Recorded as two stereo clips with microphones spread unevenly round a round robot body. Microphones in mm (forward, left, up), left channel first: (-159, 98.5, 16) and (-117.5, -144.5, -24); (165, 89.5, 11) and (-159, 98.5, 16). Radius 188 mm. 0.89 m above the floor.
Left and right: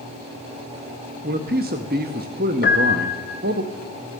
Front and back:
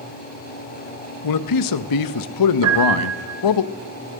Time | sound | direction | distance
1.2 | a man speaking | 25° right | 0.5 m
2.6 | a piano | 145° left | 3 m